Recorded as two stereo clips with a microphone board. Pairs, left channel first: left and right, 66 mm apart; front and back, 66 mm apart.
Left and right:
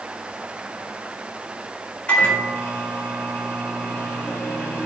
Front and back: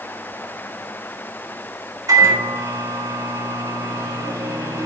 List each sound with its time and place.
2.1 s a microwave: 155° left, 4.5 m